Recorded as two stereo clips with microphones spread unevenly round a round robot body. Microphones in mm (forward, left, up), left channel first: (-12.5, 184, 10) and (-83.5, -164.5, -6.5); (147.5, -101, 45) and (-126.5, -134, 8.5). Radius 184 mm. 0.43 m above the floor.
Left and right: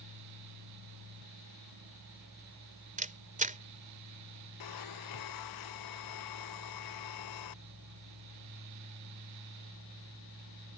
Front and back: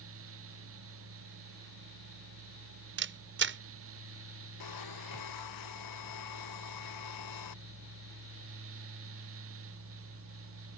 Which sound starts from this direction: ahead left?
A blender, at 4.6 s.